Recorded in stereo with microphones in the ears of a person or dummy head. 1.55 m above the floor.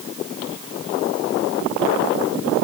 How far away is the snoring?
No snoring in this recording.